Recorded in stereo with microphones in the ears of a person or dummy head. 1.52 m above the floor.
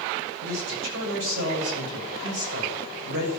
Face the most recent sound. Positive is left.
turn(degrees=-85)